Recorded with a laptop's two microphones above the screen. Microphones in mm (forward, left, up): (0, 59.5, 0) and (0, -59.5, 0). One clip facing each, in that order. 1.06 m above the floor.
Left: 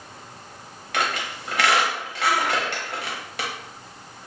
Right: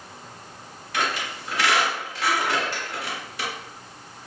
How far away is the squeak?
About 1.0 m.